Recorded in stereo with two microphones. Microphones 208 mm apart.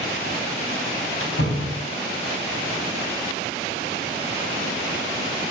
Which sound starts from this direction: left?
A door slam, at 1.2 s.